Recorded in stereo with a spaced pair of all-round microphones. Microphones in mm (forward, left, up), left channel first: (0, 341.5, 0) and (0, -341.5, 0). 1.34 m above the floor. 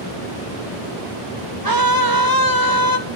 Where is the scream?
30° right (ahead or behind), 1.8 m.